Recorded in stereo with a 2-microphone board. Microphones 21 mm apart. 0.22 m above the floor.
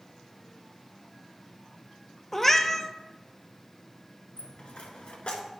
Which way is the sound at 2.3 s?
15° left (ahead or behind).